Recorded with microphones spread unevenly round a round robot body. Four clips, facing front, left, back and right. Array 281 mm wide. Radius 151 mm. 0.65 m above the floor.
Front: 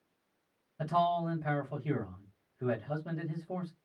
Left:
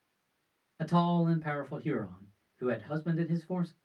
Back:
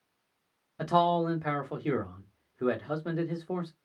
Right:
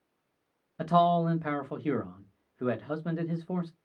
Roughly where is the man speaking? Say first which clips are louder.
Right 5 dB, back 4 dB; behind right.